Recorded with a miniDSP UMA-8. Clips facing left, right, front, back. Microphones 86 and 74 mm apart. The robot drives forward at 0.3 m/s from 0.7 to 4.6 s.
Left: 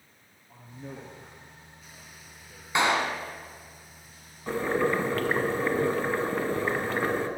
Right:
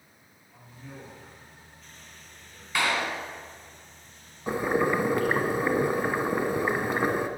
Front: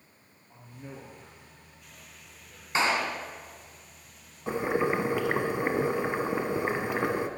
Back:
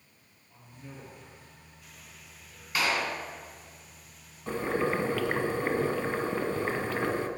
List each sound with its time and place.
0.5 s a man speaking: 45° left, 4.5 m; by 2.6 s 55° left, 4 m
2.8 s a clap: 40° left, 1.5 m; by 3.2 s 45° left, 1.5 m
4.5 s boiling: 40° right, 1.5 m; by 7.3 s 45° right, 1.5 m